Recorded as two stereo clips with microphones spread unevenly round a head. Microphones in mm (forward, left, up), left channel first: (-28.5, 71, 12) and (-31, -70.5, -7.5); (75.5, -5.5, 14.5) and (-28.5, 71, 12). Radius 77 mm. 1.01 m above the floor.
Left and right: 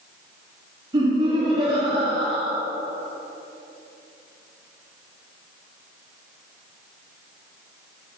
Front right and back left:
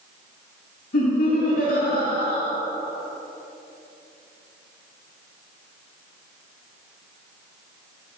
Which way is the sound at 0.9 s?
30° right.